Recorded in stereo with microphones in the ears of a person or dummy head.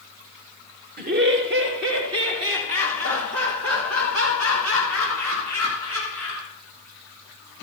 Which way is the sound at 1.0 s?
40° right (ahead or behind).